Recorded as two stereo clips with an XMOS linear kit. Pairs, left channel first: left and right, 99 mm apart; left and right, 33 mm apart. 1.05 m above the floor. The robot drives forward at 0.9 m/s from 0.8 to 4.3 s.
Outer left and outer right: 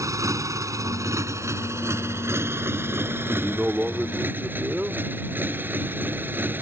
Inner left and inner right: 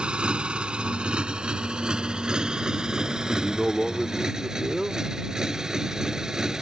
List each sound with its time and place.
0.0 s a motorcycle: 35° right (ahead or behind); by 6.6 s 20° right (ahead or behind)
3.3 s a man speaking: 15° right (ahead or behind); by 5.0 s 10° right (ahead or behind)